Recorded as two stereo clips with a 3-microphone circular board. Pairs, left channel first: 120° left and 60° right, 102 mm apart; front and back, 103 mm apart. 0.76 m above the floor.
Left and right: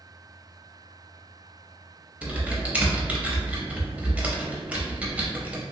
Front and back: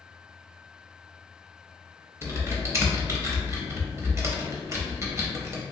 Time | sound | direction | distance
2.2 | typing on a keyboard | 130° right | 0.6 m